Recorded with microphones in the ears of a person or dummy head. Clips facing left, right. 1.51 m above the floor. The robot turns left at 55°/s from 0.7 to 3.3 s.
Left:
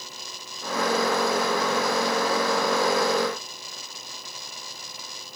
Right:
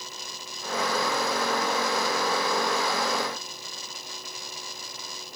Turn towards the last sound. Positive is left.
No sound to turn to.